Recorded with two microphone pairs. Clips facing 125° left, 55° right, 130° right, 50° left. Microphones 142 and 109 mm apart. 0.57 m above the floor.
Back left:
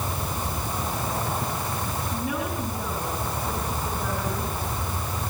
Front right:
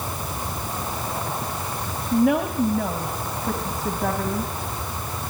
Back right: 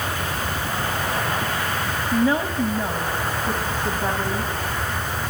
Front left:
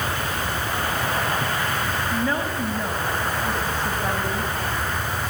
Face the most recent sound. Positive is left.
turn(degrees=-55)